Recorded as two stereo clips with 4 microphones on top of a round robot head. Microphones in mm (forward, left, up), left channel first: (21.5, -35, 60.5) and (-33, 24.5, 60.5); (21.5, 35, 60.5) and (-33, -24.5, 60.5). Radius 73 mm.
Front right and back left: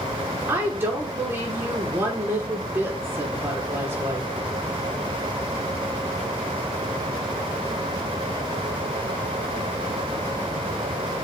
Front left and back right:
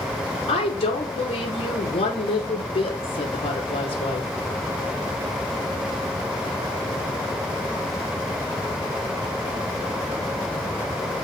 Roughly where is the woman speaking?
Ahead left.